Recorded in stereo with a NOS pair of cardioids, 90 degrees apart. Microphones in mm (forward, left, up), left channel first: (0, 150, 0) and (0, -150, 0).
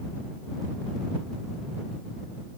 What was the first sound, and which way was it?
Only background noise.